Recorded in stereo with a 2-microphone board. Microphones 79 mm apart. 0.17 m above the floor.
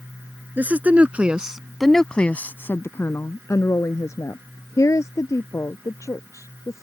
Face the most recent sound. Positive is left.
turn(degrees=40)  # may be behind; listen again after turning